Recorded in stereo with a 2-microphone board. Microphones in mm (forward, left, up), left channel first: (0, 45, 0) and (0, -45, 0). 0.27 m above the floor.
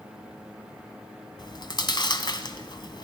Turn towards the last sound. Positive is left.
turn(degrees=55)  # may be behind; listen again after turning